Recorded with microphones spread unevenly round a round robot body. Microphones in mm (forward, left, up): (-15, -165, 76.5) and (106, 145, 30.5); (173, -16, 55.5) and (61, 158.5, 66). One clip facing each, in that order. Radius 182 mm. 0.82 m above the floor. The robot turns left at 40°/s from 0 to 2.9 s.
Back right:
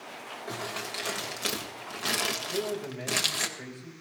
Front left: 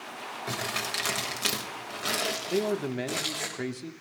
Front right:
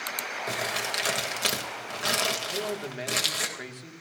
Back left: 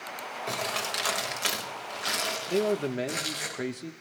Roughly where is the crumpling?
Ahead left.